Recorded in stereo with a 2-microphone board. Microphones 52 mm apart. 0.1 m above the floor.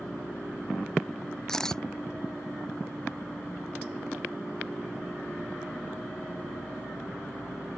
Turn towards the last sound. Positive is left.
turn(degrees=10)  # may be behind; listen again after turning